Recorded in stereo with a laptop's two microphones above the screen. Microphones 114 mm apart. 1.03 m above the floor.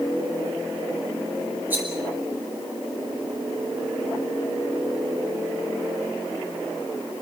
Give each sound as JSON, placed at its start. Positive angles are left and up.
{"t": 1.7, "sound": "a rattle", "side_deg": -15, "distance_m": 10.0}